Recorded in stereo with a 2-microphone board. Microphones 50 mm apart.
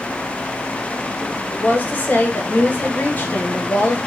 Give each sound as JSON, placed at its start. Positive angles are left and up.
{"t": 1.5, "sound": "a woman speaking", "side_deg": 35, "distance_m": 0.9}